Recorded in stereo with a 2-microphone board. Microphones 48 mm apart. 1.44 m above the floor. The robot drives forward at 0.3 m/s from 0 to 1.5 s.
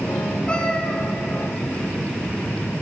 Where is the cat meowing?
20° left (ahead or behind), 1.2 m; by 1.0 s 25° left (ahead or behind), 1.2 m.